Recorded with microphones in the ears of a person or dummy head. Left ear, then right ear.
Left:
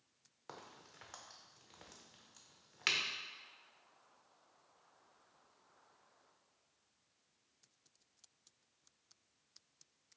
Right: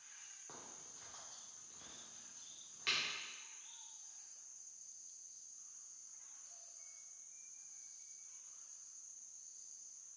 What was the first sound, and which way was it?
A crack, 40° left (ahead or behind).